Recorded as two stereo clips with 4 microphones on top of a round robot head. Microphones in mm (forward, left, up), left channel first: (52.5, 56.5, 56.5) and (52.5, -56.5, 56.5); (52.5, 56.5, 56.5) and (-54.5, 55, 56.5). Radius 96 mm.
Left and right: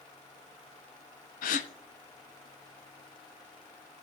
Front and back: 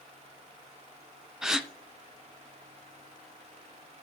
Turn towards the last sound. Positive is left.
turn(degrees=95)